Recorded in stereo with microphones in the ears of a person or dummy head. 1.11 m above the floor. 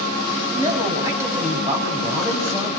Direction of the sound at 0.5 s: 20° right (ahead or behind).